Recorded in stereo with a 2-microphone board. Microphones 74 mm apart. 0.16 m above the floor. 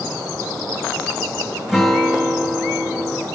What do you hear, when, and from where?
1.7 s a guitar: 5° right (ahead or behind), 4.5 m